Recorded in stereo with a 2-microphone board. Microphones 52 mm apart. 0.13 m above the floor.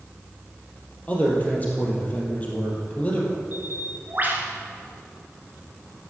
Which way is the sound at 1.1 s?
30° left (ahead or behind).